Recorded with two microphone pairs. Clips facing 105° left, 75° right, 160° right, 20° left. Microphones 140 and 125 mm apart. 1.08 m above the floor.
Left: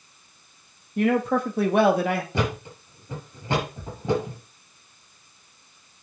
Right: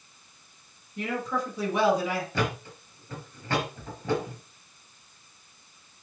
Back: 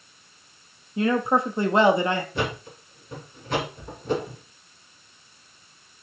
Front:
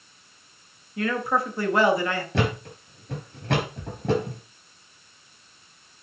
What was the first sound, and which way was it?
A man speaking, 135° left.